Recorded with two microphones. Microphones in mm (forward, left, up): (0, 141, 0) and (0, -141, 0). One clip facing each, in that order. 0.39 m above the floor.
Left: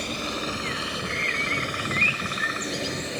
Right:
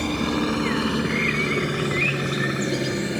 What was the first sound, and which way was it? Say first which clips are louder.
A helicopter: right 9 dB; 65° right (ahead or behind).